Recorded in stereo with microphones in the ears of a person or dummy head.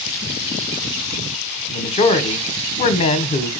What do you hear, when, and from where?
1.7 s a man speaking: 30° left (ahead or behind), 1.1 m